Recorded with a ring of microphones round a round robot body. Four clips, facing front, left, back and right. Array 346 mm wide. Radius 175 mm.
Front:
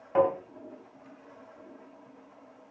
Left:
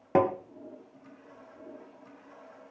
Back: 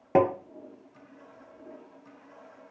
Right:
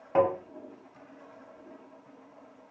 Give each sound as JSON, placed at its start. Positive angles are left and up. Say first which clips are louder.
{"t": 0.1, "sound": "tapping", "louder": "even, back 2 dB", "azimuth_deg": 140, "distance_m": 1.6}